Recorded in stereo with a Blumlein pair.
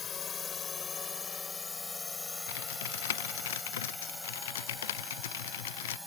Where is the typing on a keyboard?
60° left.